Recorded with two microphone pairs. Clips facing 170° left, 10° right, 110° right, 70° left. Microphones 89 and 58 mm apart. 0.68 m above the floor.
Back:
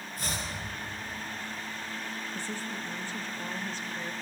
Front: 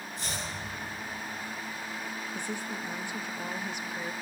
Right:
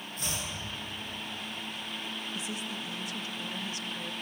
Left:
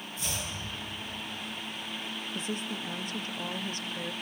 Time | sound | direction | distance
0.2 | chopping | 150° right | 9.5 m
2.4 | a woman speaking | 60° left | 0.8 m